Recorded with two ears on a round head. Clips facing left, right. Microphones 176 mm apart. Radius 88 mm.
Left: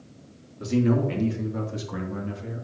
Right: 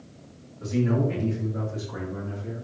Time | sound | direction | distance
0.6 | a man speaking | 75° left (ahead or behind) | 3 m